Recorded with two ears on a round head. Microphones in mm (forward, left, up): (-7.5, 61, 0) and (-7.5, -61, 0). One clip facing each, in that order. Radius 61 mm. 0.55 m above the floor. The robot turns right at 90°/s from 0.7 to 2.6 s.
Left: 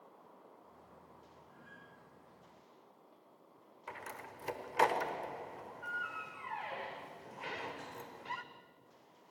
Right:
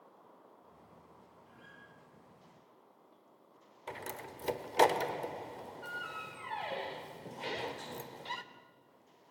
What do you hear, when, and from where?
1.5 s a guitar: 90° right, 9.5 m; by 1.8 s 55° right, 9.5 m
3.9 s a door slam: 30° right (ahead or behind), 1.2 m